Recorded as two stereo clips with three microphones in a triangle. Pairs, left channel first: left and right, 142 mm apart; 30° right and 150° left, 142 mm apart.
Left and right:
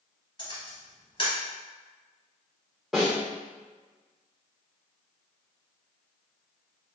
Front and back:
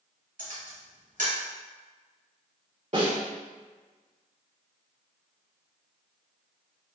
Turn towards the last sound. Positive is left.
turn(degrees=-175)